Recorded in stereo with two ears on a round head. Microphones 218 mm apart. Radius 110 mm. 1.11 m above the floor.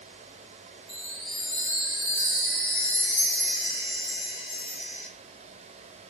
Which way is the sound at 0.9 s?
Centre (ahead or behind).